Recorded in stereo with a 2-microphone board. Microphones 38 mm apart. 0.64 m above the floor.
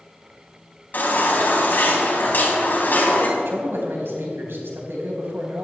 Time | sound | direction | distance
0.9 | a baby crying | 55° left (ahead or behind) | 3.5 m
3.4 | a man speaking | 80° right | 4 m